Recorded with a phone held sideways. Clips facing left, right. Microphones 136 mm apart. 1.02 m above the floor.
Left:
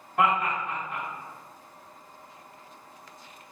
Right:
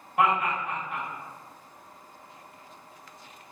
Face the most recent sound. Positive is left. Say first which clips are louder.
# even
turn(degrees=-10)  # may be behind; listen again after turning